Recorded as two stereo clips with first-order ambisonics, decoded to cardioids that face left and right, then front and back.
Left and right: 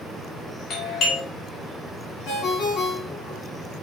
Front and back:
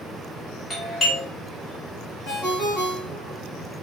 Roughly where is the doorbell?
Left.